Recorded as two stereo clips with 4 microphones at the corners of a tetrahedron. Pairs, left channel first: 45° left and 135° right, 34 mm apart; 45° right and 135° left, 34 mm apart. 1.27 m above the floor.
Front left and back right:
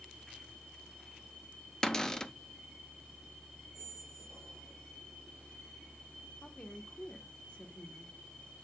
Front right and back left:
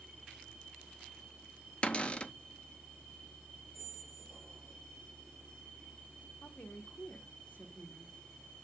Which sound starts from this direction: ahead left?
A squeak, at 3.7 s.